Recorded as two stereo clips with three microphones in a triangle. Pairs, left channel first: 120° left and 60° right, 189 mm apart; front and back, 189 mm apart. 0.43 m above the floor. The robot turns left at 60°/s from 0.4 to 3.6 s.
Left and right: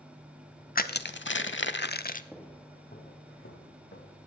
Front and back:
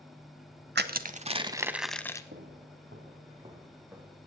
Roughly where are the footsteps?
Behind right.